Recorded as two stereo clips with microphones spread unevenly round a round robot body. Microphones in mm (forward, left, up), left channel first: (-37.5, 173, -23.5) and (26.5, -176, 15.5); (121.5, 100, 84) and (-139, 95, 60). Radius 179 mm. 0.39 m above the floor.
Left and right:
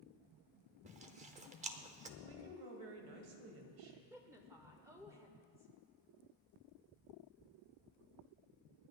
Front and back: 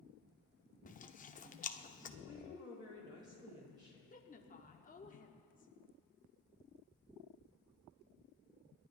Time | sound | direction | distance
0.8 | chewing | 20° right | 0.8 m
2.2 | a woman speaking | 105° right | 2.5 m
4.1 | a woman speaking | 5° left | 1.0 m